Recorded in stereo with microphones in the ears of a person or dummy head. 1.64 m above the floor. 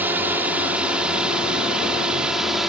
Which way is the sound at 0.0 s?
5° right (ahead or behind).